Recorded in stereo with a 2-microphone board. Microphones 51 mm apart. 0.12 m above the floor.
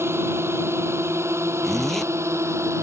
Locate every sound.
0.0 s a drone: 55° right (ahead or behind); by 2.8 s 65° right (ahead or behind)
1.6 s a zipper: 5° left (ahead or behind)